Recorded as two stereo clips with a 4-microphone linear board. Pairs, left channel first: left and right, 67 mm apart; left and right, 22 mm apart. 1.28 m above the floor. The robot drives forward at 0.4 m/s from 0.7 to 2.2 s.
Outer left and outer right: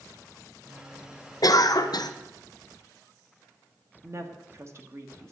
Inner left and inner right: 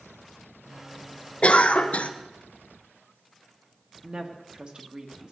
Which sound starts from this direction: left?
A cough, at 1.4 s.